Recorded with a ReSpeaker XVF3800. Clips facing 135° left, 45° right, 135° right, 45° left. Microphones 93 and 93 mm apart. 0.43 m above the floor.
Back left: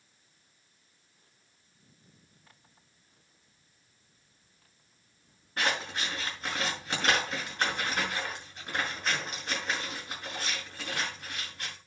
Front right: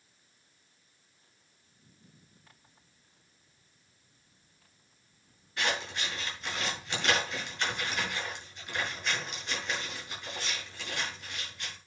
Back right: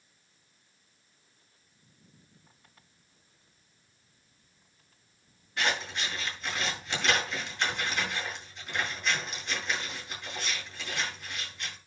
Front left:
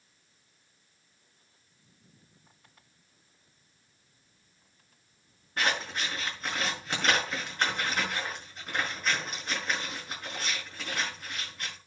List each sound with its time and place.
5.6 s scissors: 90° left, 6 m